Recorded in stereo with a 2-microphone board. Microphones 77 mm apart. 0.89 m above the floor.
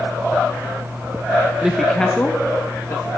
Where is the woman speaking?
10° right (ahead or behind), 0.7 m; by 3.1 s 40° left (ahead or behind), 1.1 m.